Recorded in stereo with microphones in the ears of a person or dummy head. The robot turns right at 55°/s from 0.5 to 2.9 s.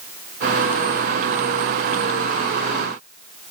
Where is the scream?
I don't hear a scream.